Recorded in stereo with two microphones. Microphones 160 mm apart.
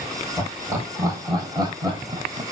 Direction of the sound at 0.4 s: 15° right (ahead or behind).